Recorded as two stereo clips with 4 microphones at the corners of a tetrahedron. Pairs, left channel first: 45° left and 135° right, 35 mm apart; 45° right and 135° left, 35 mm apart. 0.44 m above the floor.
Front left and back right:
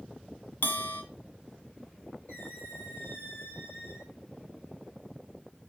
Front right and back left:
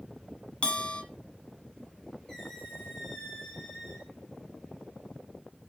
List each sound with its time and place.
0.6 s a bell: 15° left, 1.4 m
2.3 s a squeak: 30° left, 4 m